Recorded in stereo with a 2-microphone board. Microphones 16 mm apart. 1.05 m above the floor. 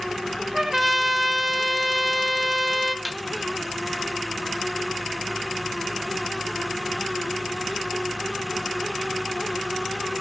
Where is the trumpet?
20° right (ahead or behind), 0.7 m.